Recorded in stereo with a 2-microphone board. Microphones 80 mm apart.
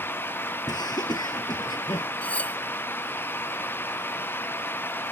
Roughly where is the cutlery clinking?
Centre.